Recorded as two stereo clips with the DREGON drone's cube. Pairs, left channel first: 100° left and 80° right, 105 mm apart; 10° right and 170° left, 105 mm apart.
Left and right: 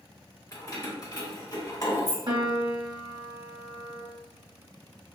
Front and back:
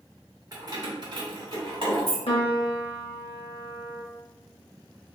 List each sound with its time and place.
0.5 s keys jangling: 135° left, 0.8 m; by 2.2 s 145° left, 1.7 m
2.3 s a piano: 35° right, 0.6 m